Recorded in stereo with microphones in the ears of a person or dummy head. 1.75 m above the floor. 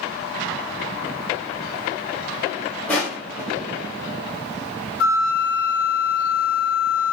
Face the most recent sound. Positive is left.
turn(degrees=70)  # may be behind; listen again after turning